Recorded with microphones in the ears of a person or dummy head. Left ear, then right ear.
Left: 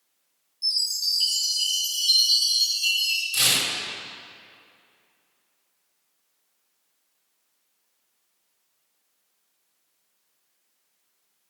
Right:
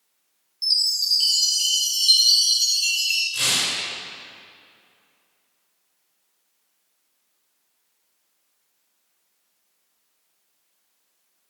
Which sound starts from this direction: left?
Tearing paper, at 3.3 s.